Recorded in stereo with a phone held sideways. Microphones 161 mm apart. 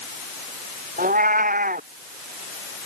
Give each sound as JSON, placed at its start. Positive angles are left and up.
{"t": 1.0, "sound": "a cat meowing", "side_deg": -65}